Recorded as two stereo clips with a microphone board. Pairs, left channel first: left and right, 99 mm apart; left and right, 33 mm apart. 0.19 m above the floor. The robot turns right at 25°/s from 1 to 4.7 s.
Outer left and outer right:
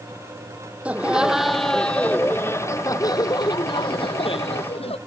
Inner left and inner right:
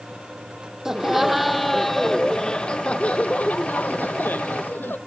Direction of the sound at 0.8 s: 15° right.